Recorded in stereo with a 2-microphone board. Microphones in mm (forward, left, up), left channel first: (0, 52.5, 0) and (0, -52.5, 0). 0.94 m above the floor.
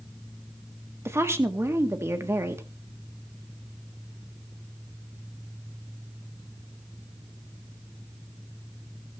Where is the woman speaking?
25° right (ahead or behind), 1.8 m.